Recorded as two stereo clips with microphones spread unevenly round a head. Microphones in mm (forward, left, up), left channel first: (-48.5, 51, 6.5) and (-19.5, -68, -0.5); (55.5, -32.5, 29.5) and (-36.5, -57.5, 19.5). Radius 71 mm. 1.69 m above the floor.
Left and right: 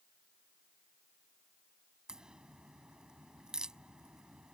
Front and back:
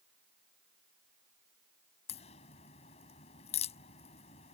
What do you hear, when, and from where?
2.1 s a crack: 10° left